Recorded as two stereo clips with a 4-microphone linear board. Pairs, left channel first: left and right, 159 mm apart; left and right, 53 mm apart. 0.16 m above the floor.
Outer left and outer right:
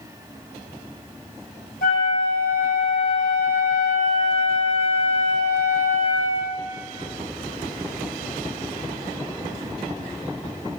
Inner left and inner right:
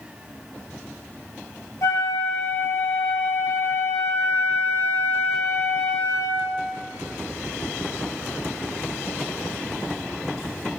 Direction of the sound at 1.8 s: 75° left (ahead or behind).